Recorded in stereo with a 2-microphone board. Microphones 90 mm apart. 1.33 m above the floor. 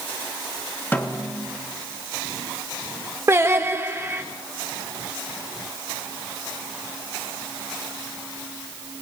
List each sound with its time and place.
0.9 s a snare drum: 20° left (ahead or behind), 1.2 m
3.3 s singing: 30° right (ahead or behind), 1.0 m